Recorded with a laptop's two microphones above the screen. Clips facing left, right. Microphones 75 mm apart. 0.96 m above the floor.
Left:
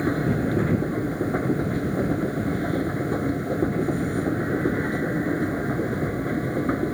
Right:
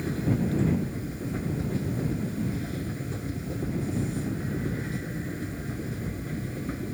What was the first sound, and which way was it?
A machine running, 50° left (ahead or behind).